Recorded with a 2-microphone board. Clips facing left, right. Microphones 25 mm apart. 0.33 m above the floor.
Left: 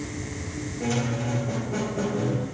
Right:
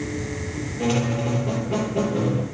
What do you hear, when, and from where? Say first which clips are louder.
0.8 s a squeak: right 4 dB; 80° right, 2.5 m